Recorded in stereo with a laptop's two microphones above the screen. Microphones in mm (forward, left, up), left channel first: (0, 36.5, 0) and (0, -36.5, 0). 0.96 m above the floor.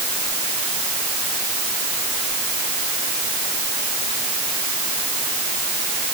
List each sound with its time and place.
Only background noise.